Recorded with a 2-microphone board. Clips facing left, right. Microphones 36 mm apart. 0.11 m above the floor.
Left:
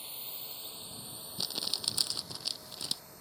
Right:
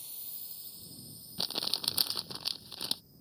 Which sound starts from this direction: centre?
Crumpling, at 1.4 s.